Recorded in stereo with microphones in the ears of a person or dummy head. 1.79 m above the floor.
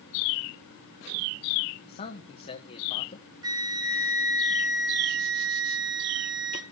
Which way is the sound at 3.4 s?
20° right (ahead or behind).